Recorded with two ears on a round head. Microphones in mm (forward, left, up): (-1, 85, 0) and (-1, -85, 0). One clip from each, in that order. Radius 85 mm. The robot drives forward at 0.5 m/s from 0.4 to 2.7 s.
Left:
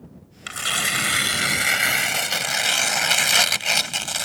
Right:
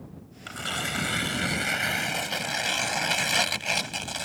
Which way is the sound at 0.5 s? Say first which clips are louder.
Left 7 dB; 60° left (ahead or behind).